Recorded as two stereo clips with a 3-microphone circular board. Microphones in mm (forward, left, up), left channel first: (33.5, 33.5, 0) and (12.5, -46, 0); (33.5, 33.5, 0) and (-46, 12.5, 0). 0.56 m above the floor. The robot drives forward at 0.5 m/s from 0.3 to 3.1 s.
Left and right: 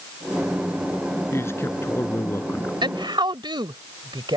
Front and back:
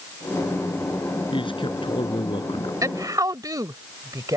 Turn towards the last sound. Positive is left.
turn(degrees=-125)